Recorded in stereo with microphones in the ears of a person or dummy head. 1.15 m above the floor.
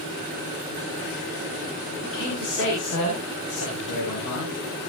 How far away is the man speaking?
About 6.5 m.